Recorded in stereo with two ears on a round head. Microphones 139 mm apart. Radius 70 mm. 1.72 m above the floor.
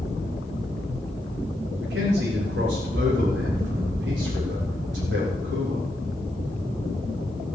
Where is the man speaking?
80° right, 4 m.